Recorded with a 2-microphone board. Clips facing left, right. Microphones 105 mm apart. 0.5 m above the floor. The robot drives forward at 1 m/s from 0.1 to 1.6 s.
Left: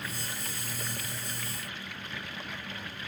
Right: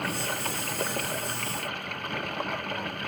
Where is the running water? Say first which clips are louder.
Right 9 dB; 60° right (ahead or behind).